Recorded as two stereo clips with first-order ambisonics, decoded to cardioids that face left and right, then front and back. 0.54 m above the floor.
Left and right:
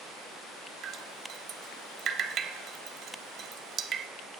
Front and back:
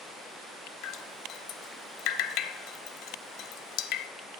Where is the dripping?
35° right, 0.5 m.